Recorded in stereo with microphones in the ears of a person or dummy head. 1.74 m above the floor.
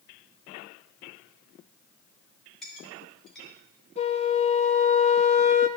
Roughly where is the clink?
Centre.